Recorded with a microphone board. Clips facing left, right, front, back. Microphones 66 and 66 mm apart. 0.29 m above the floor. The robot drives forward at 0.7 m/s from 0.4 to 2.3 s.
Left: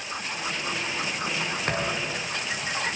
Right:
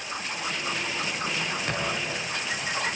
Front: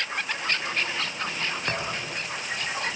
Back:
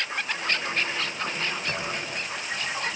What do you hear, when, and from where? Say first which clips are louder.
1.7 s a thud: left 1 dB, front 1 dB; 40° left, 7.5 m